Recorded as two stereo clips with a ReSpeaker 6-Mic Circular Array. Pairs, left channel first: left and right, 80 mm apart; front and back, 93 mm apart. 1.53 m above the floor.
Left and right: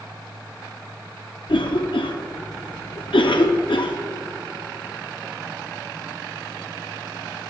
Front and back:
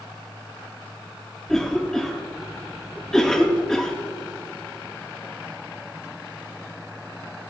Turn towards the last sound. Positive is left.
turn(degrees=85)